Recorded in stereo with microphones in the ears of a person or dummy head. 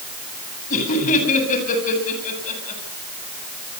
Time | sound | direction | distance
0.7 | laughter | 45° left (ahead or behind) | 9 m